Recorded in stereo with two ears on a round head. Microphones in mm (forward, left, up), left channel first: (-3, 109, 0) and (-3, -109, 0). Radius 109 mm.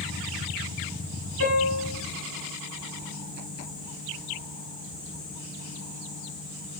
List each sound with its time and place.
1.4 s a piano: 45° left (ahead or behind), 5 m